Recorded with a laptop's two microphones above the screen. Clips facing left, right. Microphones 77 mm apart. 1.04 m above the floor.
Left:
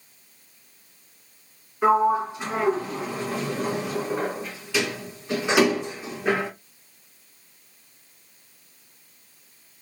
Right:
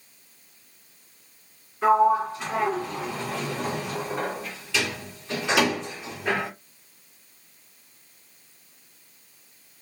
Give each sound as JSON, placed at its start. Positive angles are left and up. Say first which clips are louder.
{"t": 1.8, "sound": "a sliding door", "louder": "even", "side_deg": 10, "distance_m": 1.5}